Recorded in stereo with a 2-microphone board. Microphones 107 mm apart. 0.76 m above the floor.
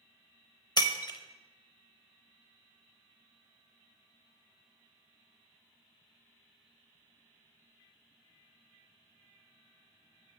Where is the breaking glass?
40° left (ahead or behind), 0.6 m.